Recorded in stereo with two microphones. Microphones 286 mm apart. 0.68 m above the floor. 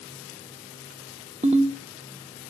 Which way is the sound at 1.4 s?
25° right (ahead or behind).